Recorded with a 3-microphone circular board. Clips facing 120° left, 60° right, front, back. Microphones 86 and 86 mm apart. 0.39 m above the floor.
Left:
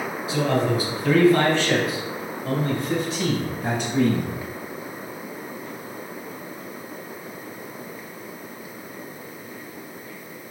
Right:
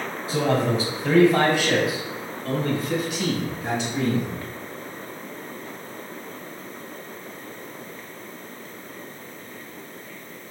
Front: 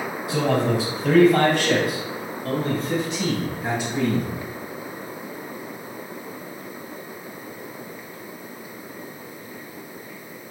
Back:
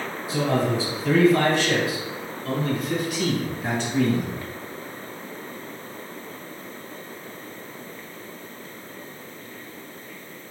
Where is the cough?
I don't hear a cough.